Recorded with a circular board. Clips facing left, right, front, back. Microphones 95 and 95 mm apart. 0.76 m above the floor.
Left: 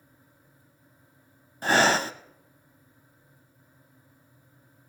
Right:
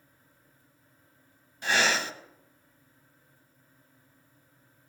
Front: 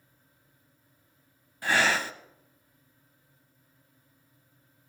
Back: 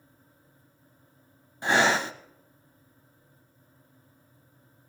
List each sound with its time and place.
1.6 s breathing: 120° left, 0.8 m